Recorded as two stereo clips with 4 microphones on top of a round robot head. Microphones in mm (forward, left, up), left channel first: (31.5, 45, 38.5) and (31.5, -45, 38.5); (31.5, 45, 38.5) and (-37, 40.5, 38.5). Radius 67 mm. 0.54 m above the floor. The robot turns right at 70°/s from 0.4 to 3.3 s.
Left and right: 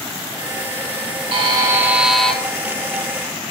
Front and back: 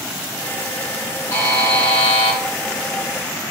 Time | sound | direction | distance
1.3 | a buzzer | 60° right | 2 m